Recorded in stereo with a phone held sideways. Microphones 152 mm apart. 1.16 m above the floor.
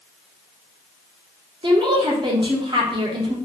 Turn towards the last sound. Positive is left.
turn(degrees=-35)  # may be behind; listen again after turning